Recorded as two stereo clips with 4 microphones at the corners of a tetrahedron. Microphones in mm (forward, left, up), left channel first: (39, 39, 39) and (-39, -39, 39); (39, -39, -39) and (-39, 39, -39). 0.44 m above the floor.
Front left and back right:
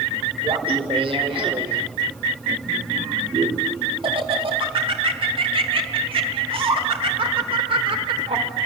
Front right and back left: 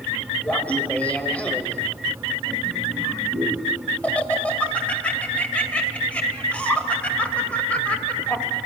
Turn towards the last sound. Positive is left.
turn(degrees=-120)